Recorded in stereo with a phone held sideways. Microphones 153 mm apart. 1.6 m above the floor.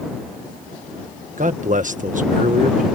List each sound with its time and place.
1.4 s a man speaking: 55° right (ahead or behind)